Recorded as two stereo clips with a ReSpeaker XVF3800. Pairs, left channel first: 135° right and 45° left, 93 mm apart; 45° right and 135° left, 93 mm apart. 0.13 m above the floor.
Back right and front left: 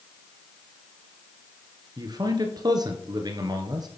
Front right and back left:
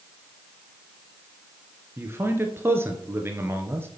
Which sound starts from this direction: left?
A man speaking, at 2.0 s.